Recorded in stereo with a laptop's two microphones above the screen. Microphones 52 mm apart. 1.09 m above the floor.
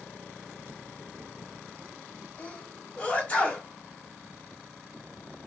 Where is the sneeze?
20° left (ahead or behind), 1.4 m.